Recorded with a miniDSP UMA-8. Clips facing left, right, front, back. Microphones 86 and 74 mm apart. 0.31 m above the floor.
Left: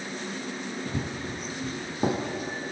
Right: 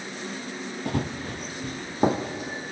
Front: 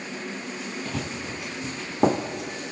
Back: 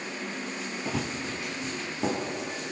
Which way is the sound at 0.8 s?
100° right.